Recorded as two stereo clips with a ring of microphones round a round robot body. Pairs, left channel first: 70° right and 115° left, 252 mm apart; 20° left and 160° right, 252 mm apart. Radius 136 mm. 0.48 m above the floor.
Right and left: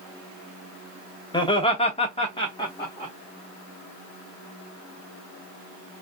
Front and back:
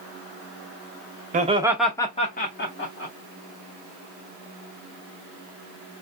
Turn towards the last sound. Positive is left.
turn(degrees=5)